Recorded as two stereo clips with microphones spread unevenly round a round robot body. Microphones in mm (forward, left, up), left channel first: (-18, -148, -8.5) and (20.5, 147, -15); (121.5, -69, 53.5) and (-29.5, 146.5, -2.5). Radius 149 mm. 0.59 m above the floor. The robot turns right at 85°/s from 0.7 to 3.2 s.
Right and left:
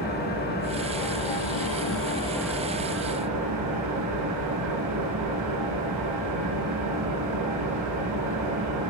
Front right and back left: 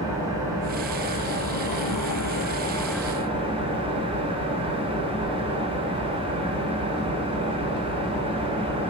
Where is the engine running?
155° right, 4.5 m; by 8.9 s 55° left, 4.5 m.